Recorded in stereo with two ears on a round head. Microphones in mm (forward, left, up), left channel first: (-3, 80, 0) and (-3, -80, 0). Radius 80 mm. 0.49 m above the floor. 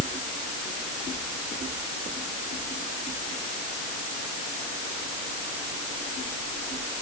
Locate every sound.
Only background noise.